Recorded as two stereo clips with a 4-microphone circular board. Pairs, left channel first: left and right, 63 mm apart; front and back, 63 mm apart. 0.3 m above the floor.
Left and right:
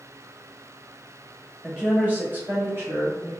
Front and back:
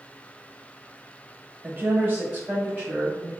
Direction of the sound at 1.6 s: 160° right.